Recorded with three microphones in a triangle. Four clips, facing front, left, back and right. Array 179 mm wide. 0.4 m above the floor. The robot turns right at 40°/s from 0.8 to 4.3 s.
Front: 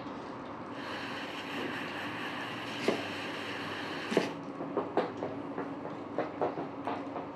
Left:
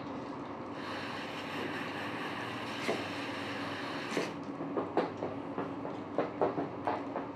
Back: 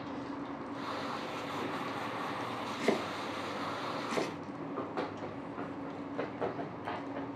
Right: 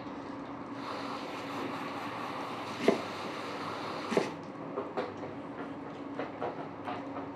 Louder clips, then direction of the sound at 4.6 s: Left 4 dB, front 6 dB; 20° left.